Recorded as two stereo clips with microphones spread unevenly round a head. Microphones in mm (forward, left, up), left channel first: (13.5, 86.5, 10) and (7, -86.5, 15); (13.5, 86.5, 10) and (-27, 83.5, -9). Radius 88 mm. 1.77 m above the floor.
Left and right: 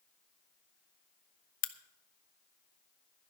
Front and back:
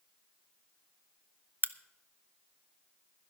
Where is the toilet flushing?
No toilet flushing in this recording.